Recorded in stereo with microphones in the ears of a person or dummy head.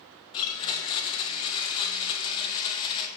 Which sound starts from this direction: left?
A blender, at 0.3 s.